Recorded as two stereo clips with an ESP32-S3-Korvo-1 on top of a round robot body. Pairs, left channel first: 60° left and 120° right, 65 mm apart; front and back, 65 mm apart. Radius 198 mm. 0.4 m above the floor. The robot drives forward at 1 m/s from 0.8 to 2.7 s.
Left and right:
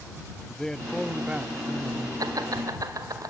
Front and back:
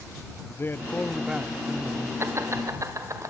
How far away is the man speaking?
About 0.9 m.